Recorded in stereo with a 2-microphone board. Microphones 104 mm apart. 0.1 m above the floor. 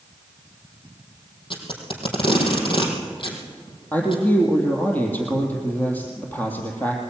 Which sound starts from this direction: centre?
A man speaking, at 3.9 s.